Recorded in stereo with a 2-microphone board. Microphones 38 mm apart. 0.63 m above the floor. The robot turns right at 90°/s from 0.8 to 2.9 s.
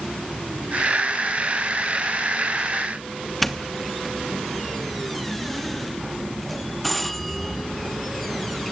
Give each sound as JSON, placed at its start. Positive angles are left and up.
{"t": 3.4, "sound": "a doorbell", "side_deg": 0, "distance_m": 1.0}